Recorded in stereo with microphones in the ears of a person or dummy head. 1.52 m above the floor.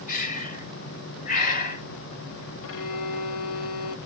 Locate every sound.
0.1 s breathing: 40° left (ahead or behind), 1.3 m
2.6 s a violin: 75° left (ahead or behind), 0.6 m